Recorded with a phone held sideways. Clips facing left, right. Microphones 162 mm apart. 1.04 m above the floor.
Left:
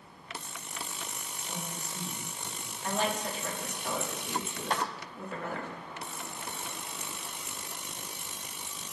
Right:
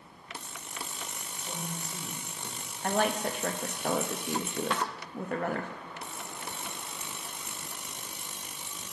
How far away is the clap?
About 0.9 m.